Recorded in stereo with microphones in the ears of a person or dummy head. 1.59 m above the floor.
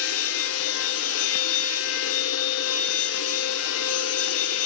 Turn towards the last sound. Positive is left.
turn(degrees=70)  # may be behind; listen again after turning